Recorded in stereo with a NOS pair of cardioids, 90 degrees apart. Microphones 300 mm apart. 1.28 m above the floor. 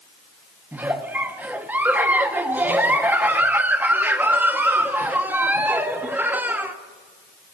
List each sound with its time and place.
0.7 s a giggle: 5° right, 0.7 m